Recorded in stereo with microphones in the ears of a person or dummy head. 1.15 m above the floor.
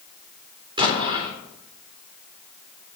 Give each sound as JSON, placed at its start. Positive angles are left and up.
{"t": 0.8, "sound": "an explosion", "side_deg": -25, "distance_m": 4.5}